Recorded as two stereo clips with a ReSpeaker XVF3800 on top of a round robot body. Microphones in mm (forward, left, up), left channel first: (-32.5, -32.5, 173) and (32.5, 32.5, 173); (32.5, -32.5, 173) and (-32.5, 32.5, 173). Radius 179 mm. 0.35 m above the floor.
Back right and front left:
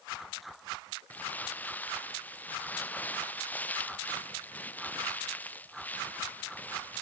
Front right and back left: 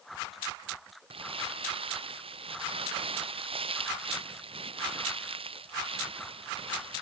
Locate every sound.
1.1 s crumpling: 150° left